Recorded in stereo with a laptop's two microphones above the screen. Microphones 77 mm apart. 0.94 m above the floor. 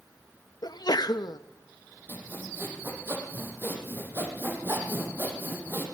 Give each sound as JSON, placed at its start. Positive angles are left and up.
{"t": 0.6, "sound": "a sneeze", "side_deg": 70, "distance_m": 0.7}
{"t": 2.1, "sound": "sawing", "side_deg": -30, "distance_m": 6.5}